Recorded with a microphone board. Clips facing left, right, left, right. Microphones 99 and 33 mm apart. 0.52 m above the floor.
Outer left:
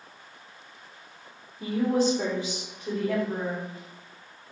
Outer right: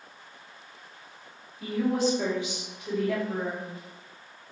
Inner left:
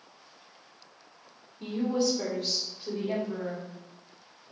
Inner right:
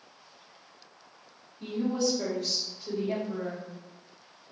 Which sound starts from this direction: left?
A woman speaking, at 1.6 s.